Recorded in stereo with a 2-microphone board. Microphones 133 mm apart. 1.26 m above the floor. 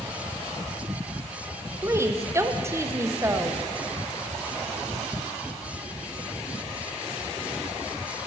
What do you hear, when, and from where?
1.8 s a woman speaking: 20° right (ahead or behind), 0.6 m